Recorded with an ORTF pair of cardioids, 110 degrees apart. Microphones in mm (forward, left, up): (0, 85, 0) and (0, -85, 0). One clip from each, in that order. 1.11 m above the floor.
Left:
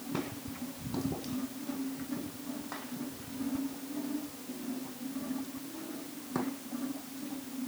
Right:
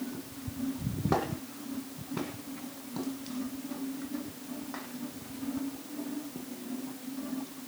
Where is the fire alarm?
I don't hear a fire alarm.